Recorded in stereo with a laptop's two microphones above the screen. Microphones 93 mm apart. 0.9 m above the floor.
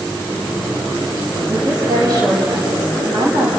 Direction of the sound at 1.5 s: 45° right (ahead or behind).